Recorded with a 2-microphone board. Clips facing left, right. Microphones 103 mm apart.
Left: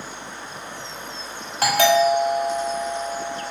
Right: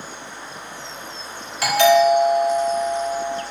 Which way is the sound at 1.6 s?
45° left (ahead or behind).